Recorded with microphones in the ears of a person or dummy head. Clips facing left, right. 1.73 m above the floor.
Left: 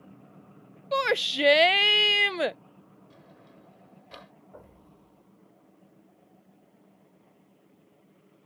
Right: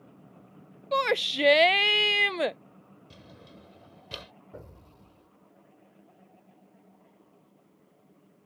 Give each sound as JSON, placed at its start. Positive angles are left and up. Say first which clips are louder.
{"t": 0.9, "sound": "a shout", "louder": "even", "side_deg": 0}
{"t": 3.1, "sound": "a drawer", "louder": "right 4 dB", "side_deg": -40}
{"t": 4.5, "sound": "an explosion", "louder": "right 4 dB", "side_deg": -35}